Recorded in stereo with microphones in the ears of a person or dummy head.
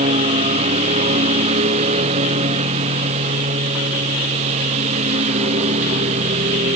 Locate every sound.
0.0 s a lawn mower: 35° right (ahead or behind)